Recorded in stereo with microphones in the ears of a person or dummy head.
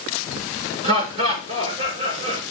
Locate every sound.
0.8 s laughter: 40° right (ahead or behind), 5 m